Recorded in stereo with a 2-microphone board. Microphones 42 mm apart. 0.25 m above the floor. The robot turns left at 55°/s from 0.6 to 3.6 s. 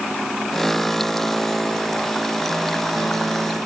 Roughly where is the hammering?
No hammering in this recording.